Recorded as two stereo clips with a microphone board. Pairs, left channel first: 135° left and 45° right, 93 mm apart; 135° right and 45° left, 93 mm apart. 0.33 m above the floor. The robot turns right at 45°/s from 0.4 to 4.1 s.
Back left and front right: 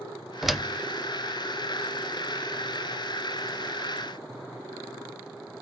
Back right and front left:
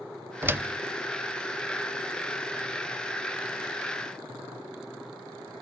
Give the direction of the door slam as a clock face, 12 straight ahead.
11 o'clock.